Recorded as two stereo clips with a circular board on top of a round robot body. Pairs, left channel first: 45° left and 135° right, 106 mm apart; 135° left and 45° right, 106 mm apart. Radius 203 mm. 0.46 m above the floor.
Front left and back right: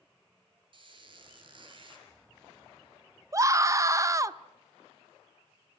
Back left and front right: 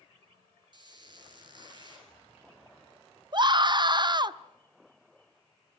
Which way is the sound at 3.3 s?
80° right.